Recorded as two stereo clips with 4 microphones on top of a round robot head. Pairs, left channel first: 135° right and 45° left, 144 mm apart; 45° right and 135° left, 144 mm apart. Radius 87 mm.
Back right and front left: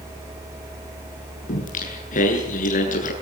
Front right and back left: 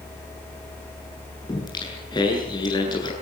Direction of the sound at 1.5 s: 105° right.